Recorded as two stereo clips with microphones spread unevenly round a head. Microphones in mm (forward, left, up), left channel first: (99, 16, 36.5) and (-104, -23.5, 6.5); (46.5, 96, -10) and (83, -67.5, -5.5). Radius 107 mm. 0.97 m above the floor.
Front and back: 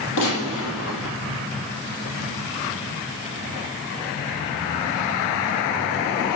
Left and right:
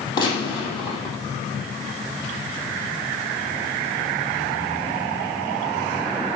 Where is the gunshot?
35° left, 4.5 m.